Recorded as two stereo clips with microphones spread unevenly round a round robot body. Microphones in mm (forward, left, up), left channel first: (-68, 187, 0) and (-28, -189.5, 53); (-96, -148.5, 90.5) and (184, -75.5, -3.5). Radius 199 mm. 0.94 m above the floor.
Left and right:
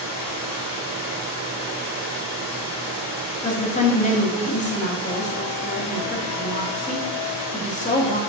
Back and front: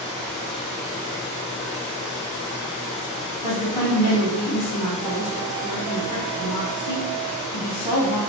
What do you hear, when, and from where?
0.0 s running water: 145° left, 2 m
3.4 s a woman speaking: 165° left, 1.7 m